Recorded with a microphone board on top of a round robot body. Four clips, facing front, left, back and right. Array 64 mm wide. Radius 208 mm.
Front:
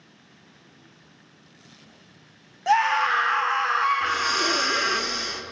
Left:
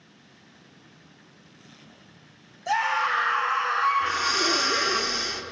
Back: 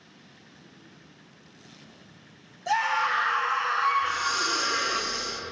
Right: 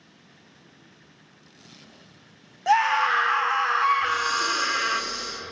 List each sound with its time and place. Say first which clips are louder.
2.7 s a scream: right 4 dB, front 5 dB; 50° right, 3.5 m
4.0 s breathing: right 1 dB, front 3 dB; 35° left, 1.7 m